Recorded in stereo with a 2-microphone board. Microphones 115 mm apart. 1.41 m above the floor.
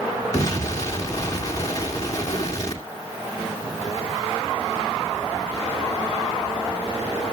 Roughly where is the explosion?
Left.